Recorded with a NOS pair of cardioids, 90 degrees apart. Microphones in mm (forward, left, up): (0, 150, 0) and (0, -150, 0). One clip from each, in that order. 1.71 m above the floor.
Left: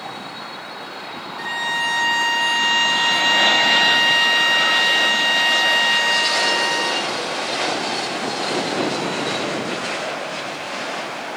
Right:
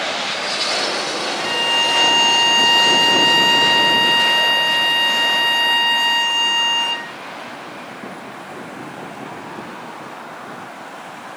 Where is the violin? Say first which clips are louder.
Right 4 dB; 5° right, 4.5 m.